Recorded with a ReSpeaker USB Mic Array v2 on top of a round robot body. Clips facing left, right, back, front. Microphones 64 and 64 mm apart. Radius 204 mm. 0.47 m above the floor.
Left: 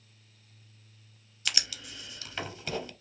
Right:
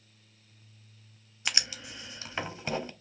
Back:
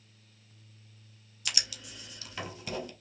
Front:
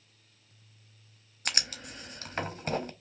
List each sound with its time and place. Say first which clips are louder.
1.4 s writing: right 2 dB, front 4 dB; 30° right, 1.0 m